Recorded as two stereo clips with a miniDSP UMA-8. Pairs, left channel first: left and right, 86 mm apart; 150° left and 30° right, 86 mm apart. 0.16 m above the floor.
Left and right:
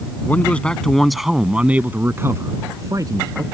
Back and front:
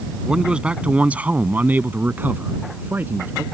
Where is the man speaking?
40° left; by 3.4 s 90° right.